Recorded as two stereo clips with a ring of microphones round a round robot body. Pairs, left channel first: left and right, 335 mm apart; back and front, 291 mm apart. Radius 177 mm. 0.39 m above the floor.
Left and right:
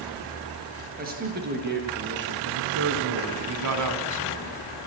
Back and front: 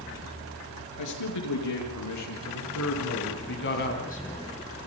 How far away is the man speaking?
About 6.5 m.